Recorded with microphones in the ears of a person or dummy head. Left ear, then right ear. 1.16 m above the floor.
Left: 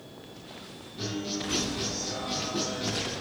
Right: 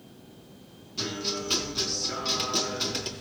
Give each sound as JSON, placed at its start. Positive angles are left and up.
{"t": 1.0, "sound": "a guitar", "side_deg": -65, "distance_m": 4.5}